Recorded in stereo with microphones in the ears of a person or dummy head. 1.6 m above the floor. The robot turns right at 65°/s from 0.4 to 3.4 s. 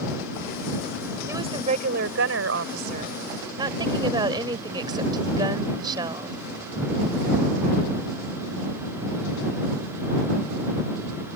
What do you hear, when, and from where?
1.3 s a woman speaking: 160° right; by 6.3 s 25° right